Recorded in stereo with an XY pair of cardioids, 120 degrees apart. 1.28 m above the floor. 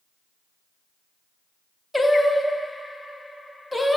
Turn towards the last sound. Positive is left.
turn(degrees=0)